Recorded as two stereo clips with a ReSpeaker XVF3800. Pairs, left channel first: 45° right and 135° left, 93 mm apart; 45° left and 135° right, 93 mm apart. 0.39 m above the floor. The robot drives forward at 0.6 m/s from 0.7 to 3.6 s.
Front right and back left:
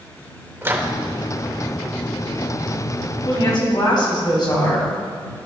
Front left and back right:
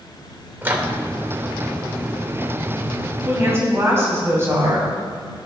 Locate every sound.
0.6 s a microwave: 175° left, 0.8 m
3.2 s a woman speaking: 70° right, 2.5 m; by 5.0 s 75° right, 2.5 m